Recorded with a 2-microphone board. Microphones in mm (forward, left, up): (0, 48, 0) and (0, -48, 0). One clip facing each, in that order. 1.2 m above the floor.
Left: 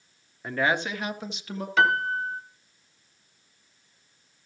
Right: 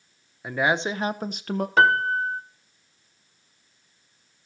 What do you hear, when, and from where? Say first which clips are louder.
0.4 s a woman speaking: right 2 dB; 5° right (ahead or behind), 0.9 m; by 1.7 s 60° right (ahead or behind), 1.1 m
1.8 s a piano: right 3 dB; 40° right (ahead or behind), 1.3 m